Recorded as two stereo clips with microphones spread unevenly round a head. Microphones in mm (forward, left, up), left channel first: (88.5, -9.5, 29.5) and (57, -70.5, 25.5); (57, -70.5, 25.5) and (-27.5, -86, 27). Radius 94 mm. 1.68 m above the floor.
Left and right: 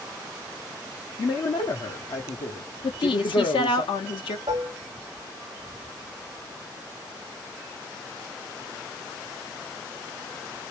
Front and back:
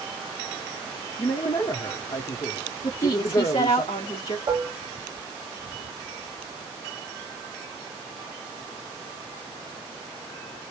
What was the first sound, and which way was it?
A man speaking, 65° left.